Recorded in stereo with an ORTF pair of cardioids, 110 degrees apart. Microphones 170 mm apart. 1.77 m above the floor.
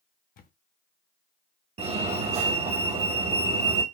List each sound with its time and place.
0.4 s a camera shutter: 55° left, 0.7 m
1.8 s a fire alarm: 40° right, 1.0 m